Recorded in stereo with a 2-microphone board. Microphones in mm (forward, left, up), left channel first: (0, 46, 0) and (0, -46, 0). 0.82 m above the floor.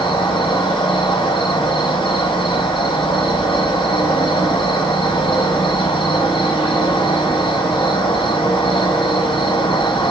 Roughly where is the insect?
Left.